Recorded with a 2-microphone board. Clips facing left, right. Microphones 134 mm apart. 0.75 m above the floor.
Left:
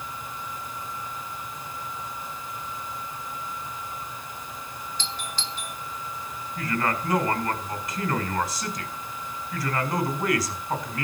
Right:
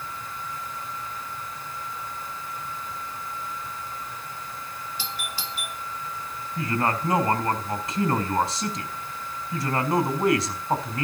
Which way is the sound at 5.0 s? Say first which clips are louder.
Left 1 dB; 10° right (ahead or behind).